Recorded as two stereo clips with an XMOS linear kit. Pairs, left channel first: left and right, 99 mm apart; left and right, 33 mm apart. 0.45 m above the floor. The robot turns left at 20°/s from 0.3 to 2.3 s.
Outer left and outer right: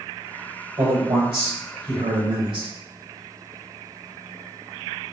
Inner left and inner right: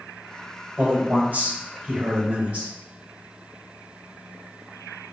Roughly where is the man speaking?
Right.